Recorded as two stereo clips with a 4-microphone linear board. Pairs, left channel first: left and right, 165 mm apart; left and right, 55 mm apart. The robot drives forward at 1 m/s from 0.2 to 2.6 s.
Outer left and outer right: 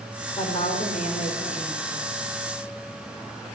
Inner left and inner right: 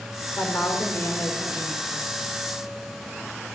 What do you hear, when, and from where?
0.4 s a woman speaking: 45° left (ahead or behind), 5 m; by 2.1 s 60° left (ahead or behind), 4 m